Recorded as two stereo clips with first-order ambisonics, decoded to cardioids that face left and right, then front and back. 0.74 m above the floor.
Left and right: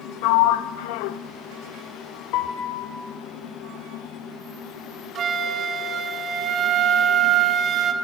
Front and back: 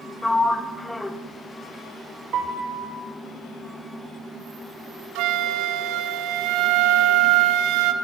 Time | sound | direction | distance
0.2 | a sliding door | 85° left | 1.0 m
2.3 | a piano | 125° left | 4 m
5.2 | a flute | 150° right | 1.8 m